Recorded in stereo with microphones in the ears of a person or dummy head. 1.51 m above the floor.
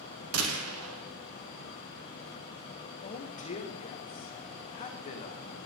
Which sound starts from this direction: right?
A gunshot, at 0.3 s.